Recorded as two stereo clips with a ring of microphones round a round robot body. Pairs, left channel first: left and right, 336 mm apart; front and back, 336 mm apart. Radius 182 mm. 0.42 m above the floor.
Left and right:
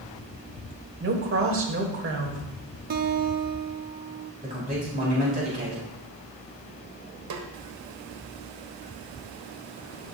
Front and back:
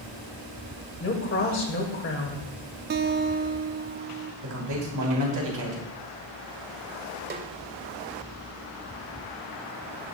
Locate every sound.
1.0 s a woman speaking: 45° right, 2.0 m
2.9 s a guitar: 135° right, 0.5 m
4.4 s a man speaking: 155° right, 3 m
7.3 s a snare drum: 125° right, 1.3 m